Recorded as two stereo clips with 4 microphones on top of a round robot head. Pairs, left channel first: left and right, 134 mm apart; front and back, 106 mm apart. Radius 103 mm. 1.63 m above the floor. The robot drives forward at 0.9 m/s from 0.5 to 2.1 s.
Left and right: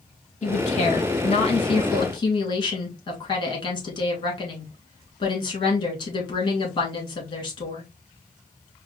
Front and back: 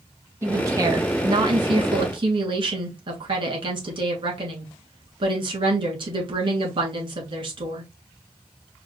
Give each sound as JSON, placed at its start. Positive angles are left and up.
{"t": 0.4, "sound": "a woman speaking", "azimuth_deg": 115, "distance_m": 1.8}